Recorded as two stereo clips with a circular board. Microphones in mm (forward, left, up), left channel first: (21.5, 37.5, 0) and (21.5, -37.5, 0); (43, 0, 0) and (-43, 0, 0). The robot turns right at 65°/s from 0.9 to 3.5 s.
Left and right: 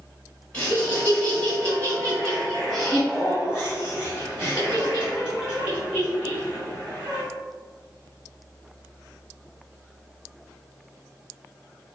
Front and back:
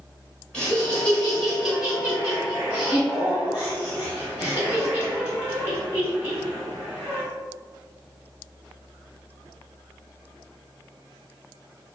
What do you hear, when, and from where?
0.5 s laughter: 55° left, 1.5 m; by 7.2 s 135° right, 1.5 m